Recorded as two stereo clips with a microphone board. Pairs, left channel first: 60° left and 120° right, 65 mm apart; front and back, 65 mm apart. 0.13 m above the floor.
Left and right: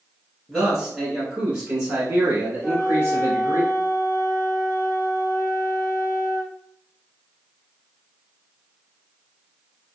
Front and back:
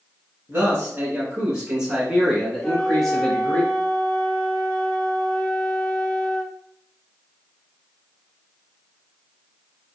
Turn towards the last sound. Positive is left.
turn(degrees=50)